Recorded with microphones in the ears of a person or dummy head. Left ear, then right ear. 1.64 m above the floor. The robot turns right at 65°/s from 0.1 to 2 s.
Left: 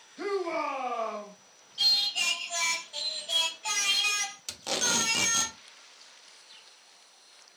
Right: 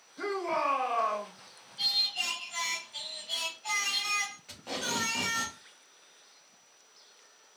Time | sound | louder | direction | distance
0.2 | a shout | even | 170° right | 1.0 m
1.8 | singing | left 4 dB | 60° left (ahead or behind) | 1.2 m
4.5 | tape being pulled | left 5 dB | 85° left | 0.9 m